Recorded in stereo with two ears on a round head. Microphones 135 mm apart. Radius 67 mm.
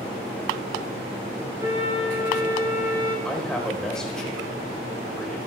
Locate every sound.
1.6 s a flute: 20° right (ahead or behind), 6.5 m
3.2 s a man speaking: 5° left (ahead or behind), 4 m